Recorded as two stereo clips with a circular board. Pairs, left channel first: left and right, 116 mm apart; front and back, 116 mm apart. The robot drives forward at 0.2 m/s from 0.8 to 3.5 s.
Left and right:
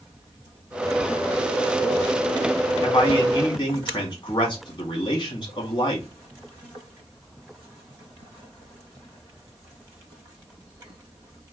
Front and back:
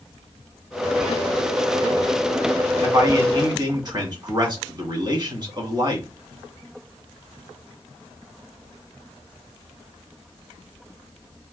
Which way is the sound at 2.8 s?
130° left.